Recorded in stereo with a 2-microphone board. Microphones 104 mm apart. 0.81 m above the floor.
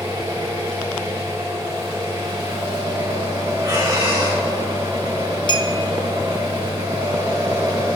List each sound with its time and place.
0.0 s an engine running: 55° right (ahead or behind), 4.5 m
3.6 s breathing: 40° right (ahead or behind), 4 m
5.5 s a clink: 45° left (ahead or behind), 0.9 m